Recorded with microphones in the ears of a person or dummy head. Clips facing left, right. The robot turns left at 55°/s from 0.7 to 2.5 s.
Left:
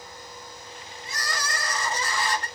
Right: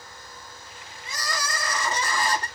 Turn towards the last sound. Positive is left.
turn(degrees=-155)